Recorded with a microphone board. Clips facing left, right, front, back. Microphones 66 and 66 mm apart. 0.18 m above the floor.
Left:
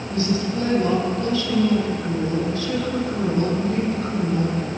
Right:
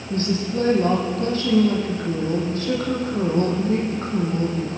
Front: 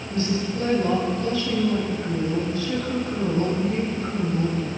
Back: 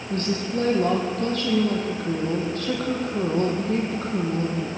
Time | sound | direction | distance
0.1 | a woman speaking | 140° right | 8 m